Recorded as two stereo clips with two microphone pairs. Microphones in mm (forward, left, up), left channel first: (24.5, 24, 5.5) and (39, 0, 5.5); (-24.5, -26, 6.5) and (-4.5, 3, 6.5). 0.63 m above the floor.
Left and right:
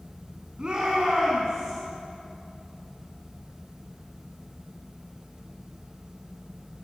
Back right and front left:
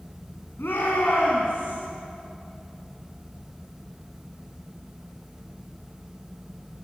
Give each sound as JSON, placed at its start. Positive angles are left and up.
{"t": 0.6, "sound": "a shout", "azimuth_deg": -120, "distance_m": 5.0}